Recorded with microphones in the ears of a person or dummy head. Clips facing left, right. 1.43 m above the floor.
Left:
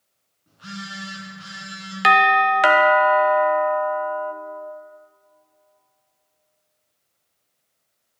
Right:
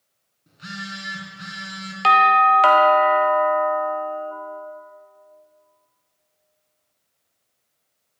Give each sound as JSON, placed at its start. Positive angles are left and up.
{"t": 0.5, "sound": "a phone buzzing", "side_deg": -40, "distance_m": 2.5}
{"t": 2.0, "sound": "a doorbell", "side_deg": 25, "distance_m": 0.6}